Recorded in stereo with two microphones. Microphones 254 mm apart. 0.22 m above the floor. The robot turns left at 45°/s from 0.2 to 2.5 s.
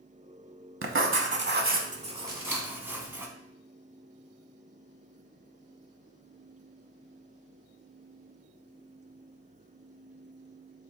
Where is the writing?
95° right, 0.6 m; by 3.3 s 170° right, 0.6 m.